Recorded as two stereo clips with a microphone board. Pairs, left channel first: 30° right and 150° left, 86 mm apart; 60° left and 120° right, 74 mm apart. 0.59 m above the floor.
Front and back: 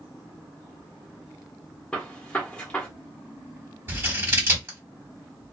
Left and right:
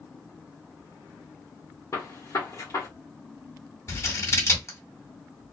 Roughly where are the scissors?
Left.